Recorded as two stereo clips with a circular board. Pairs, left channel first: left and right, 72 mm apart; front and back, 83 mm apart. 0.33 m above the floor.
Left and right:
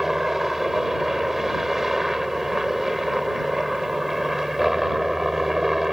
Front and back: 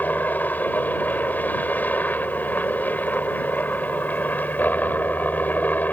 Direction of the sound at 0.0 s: 10° right.